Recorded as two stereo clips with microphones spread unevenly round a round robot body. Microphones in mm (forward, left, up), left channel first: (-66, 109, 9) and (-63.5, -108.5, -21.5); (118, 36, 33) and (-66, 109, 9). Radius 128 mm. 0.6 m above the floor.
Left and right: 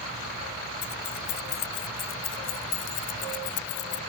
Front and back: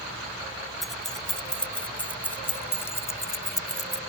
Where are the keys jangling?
70° left; by 4.0 s 50° left.